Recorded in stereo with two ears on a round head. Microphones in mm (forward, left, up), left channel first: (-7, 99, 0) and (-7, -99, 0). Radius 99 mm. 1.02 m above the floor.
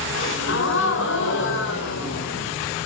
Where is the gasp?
60° left (ahead or behind), 4.5 m.